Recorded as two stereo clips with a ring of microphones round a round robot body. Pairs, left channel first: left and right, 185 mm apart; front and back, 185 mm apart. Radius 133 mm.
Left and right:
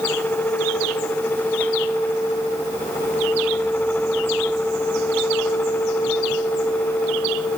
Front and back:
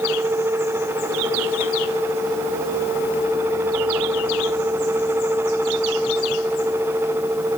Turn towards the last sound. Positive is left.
No sound to turn to.